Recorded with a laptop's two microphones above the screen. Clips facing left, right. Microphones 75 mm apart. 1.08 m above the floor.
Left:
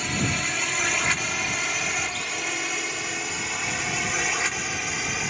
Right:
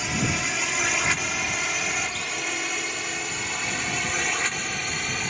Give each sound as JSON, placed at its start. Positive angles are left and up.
{"t": 0.0, "sound": "a drone", "side_deg": -5}